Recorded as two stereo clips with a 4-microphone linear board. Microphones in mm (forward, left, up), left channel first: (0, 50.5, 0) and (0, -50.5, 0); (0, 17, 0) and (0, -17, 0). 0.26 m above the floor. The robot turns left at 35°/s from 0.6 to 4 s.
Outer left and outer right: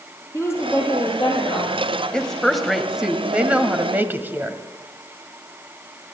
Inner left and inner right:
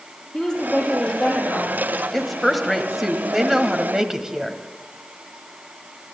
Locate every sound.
0.3 s a woman speaking: 155° left, 6 m; by 2.0 s 105° left, 6 m
2.1 s a woman speaking: 10° left (ahead or behind), 1.4 m; by 4.6 s 20° right (ahead or behind), 1.4 m